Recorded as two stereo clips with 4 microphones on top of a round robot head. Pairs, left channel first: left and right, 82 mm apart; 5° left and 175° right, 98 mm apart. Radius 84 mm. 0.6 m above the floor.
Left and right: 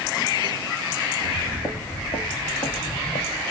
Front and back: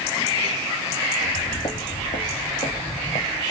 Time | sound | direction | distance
1.2 | footsteps | 15° left | 0.9 m